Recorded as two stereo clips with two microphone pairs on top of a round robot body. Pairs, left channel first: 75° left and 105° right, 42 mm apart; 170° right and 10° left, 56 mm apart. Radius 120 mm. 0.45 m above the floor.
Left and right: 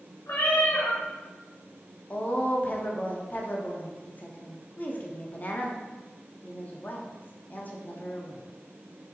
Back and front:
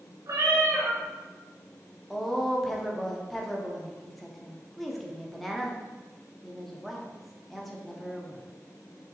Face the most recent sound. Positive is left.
turn(degrees=85)